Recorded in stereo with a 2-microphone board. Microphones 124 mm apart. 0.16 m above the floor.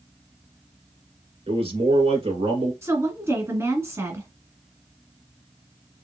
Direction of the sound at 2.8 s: 25° right (ahead or behind).